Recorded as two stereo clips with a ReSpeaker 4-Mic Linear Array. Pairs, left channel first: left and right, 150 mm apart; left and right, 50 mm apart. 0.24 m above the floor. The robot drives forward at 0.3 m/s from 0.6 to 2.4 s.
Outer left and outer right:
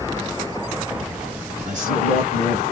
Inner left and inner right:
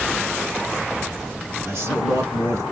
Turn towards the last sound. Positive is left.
turn(degrees=-50)  # may be behind; listen again after turning